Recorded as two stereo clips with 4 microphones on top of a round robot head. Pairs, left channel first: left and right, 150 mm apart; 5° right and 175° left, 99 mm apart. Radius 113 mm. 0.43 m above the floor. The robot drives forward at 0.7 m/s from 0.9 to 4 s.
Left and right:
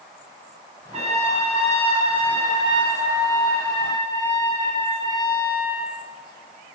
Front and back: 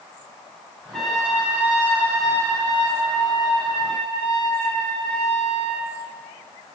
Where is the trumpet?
85° right, 1.8 m; by 5.8 s 150° right, 3 m.